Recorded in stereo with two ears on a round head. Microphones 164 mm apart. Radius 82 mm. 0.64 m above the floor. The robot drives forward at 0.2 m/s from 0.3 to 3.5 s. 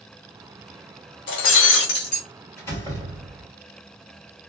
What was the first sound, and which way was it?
Breaking glass, 75° left (ahead or behind).